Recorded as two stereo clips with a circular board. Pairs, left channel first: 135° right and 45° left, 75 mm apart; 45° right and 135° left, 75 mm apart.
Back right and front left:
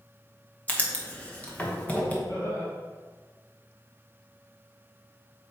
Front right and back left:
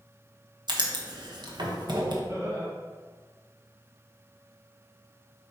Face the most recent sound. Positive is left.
turn(degrees=-175)